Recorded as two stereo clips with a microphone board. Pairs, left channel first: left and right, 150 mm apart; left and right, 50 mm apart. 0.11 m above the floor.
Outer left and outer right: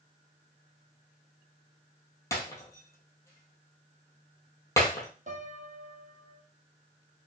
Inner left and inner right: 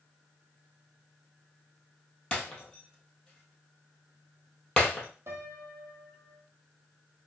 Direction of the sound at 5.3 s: 55° right (ahead or behind).